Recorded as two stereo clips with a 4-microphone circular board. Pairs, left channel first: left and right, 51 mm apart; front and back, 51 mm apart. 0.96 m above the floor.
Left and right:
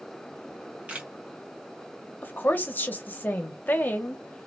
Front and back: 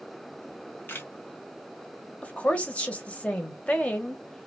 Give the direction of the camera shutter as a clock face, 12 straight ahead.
1 o'clock.